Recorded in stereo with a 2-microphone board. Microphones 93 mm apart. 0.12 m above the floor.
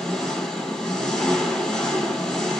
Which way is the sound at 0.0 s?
5° left (ahead or behind).